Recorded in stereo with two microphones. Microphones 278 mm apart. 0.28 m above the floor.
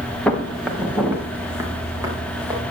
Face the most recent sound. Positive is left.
turn(degrees=-15)  # may be behind; listen again after turning